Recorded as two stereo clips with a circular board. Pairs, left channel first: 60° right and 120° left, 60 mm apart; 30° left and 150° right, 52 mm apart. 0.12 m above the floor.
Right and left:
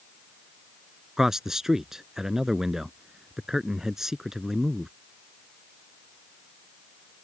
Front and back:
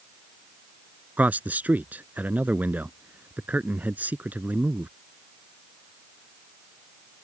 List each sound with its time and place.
1.2 s a man speaking: 165° right